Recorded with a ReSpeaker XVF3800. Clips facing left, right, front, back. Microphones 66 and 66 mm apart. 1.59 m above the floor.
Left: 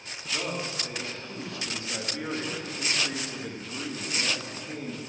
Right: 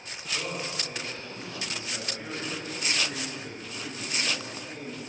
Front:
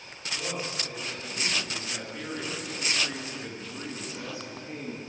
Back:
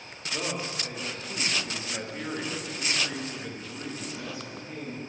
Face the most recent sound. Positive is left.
turn(degrees=50)